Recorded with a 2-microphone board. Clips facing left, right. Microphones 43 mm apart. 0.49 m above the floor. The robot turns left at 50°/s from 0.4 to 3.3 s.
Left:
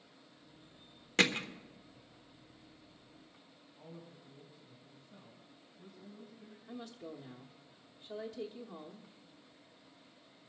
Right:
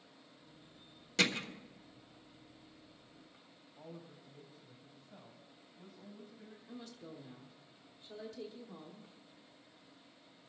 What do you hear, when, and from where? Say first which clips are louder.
1.2 s hammering: left 3 dB; 45° left (ahead or behind), 1.2 m; by 1.5 s 40° left (ahead or behind), 1.2 m
3.8 s a woman speaking: right 1 dB; 55° right (ahead or behind), 3.5 m
6.7 s a woman speaking: left 4 dB; 25° left (ahead or behind), 1.0 m